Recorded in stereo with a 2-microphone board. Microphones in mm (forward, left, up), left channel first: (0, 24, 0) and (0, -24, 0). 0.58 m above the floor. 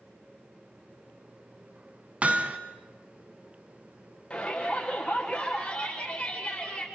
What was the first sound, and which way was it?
Hammering, 30° right (ahead or behind).